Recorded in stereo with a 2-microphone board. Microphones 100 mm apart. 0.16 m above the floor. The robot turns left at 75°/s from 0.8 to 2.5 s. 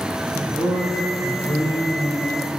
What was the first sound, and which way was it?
A man speaking, 110° left.